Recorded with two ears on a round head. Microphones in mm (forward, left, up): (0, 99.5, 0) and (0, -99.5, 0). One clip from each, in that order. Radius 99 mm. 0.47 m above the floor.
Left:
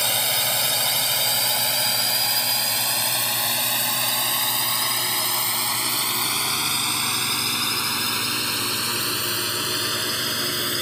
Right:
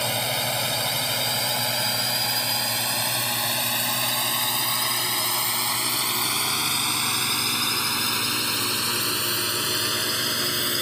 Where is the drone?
50° left (ahead or behind); by 10.8 s 10° right (ahead or behind).